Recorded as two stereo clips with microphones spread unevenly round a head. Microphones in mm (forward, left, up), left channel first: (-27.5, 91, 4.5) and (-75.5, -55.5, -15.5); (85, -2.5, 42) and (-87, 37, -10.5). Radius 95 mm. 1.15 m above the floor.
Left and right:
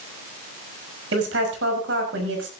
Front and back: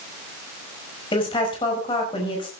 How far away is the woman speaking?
About 5.5 m.